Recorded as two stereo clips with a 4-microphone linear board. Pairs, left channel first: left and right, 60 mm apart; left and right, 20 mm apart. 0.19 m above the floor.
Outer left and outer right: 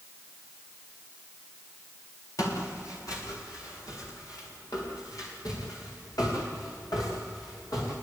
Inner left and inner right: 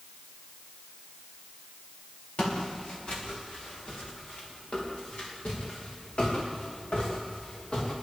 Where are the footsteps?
65° left (ahead or behind), 8.5 m; by 8.0 s 80° left, 11.5 m.